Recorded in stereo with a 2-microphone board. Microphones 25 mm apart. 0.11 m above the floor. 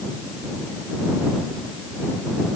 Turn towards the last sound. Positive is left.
No sound to turn to.